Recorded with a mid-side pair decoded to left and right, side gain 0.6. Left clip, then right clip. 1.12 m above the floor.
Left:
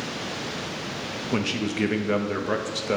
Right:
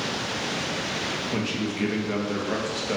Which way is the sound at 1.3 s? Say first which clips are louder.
Left 1 dB; 30° left.